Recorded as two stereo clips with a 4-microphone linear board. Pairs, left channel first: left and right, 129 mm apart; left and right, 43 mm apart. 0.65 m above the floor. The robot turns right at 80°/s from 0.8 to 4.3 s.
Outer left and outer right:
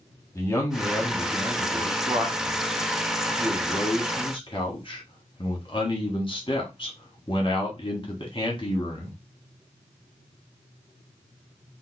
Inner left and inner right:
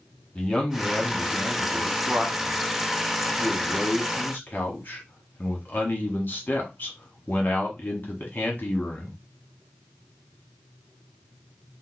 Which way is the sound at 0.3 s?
150° left.